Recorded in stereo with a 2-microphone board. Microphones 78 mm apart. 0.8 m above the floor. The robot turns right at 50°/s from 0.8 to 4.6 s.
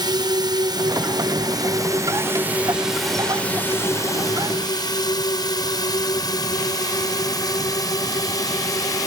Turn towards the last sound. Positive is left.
turn(degrees=50)  # may be behind; listen again after turning